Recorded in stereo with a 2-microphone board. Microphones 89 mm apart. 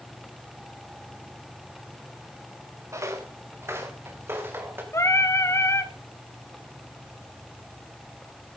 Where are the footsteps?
35° right (ahead or behind), 1.9 m; by 4.8 s 25° right (ahead or behind), 3 m.